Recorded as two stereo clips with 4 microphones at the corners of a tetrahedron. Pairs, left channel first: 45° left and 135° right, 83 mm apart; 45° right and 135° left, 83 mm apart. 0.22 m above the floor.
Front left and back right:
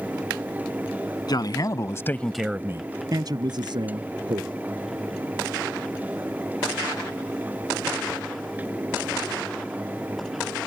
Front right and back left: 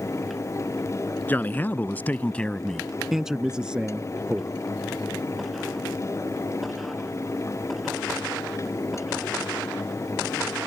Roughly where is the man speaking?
Ahead.